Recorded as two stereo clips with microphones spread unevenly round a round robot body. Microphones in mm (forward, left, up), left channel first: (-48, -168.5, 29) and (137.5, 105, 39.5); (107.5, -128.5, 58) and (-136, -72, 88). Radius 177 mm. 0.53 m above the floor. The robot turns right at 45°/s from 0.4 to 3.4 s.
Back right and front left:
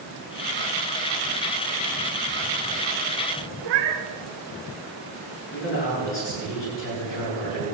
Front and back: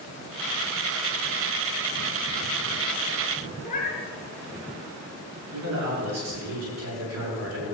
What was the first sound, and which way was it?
A cat meowing, 55° left.